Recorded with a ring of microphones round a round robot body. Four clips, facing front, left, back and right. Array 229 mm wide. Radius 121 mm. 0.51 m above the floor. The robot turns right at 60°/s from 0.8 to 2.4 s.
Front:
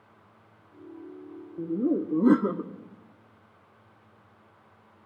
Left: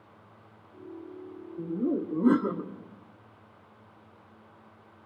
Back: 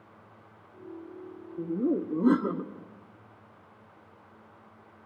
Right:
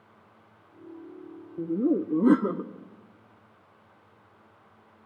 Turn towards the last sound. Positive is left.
turn(degrees=-45)